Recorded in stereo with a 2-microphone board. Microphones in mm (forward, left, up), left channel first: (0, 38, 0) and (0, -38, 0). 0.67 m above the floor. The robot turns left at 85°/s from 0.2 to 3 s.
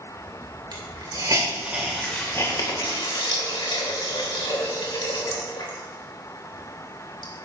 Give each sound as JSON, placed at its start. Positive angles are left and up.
{"t": 0.7, "sound": "a hiss", "side_deg": -65, "distance_m": 3.0}